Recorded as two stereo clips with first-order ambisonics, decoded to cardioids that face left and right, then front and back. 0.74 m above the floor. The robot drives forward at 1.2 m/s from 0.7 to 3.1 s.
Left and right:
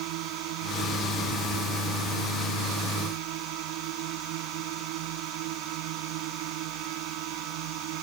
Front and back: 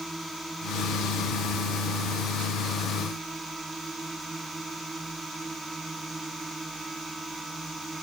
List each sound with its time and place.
0.0 s a drone: 95° right; by 8.0 s 100° right